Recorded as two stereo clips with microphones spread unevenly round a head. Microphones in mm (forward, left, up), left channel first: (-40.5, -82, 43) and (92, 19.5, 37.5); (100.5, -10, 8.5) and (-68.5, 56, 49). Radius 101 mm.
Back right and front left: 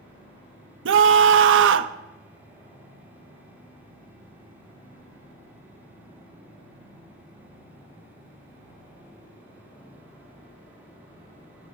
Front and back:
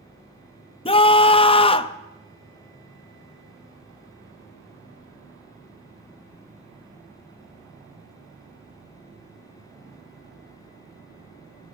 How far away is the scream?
About 0.9 m.